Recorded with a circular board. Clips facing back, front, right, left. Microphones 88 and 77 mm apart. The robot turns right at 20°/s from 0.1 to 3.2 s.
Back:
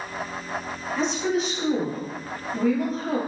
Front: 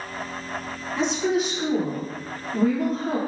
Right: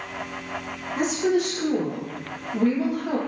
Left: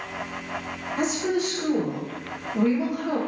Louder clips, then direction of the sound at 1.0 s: Front 2 dB, right 3 dB; 90° right.